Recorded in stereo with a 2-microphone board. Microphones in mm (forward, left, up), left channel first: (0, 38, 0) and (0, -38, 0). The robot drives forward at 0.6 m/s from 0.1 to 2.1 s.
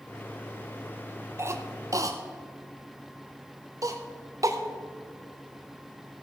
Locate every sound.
1.4 s a cough: 35° right (ahead or behind), 0.8 m; by 4.6 s 45° right (ahead or behind), 0.6 m